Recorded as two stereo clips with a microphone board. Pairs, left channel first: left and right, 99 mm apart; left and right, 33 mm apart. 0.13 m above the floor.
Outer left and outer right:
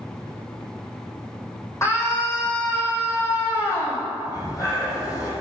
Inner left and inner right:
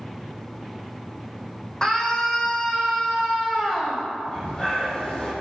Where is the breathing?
35° left (ahead or behind), 5.5 m.